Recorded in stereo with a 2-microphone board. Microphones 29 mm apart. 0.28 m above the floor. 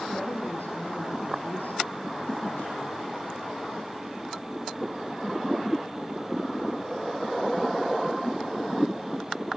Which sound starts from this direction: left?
A woman speaking, at 0.1 s.